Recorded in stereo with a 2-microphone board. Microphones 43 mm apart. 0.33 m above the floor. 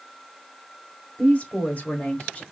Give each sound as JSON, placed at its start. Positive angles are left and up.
{"t": 1.2, "sound": "a woman speaking", "side_deg": 35, "distance_m": 1.8}